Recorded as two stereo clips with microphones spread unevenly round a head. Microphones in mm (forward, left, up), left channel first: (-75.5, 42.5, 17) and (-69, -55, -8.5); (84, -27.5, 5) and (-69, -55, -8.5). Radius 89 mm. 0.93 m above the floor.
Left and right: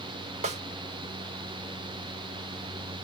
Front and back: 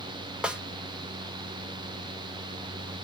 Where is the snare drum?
85° right, 0.6 m.